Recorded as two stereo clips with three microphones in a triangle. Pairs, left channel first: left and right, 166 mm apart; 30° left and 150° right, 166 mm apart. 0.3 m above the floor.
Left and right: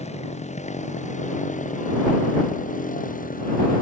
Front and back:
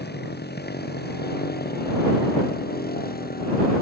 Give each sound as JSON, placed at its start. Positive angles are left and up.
{"t": 0.0, "sound": "a motorcycle", "azimuth_deg": 40}